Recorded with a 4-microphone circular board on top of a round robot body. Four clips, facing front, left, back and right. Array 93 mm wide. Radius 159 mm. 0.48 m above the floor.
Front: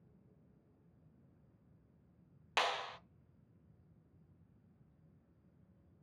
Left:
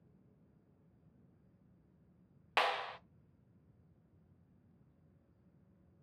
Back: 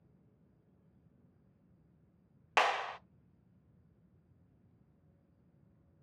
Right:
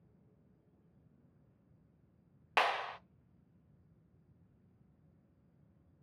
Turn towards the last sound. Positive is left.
turn(degrees=-160)